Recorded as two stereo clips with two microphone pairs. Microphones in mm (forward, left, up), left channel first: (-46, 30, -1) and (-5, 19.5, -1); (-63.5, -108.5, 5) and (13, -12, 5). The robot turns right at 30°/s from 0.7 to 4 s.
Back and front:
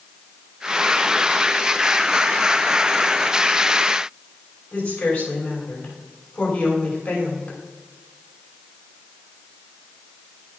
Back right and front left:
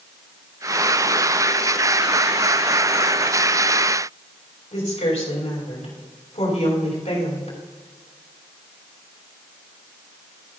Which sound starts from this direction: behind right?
A woman speaking, at 4.7 s.